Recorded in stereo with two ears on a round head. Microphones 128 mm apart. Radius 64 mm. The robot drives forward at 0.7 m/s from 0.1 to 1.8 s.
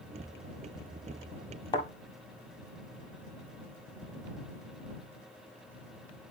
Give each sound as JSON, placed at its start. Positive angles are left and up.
{"t": 1.7, "sound": "a thud", "side_deg": 30, "distance_m": 1.6}